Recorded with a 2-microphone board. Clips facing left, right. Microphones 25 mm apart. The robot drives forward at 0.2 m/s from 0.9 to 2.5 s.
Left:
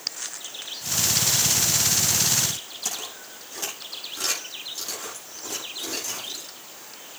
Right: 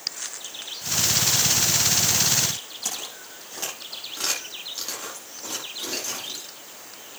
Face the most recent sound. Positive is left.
turn(degrees=-35)  # may be behind; listen again after turning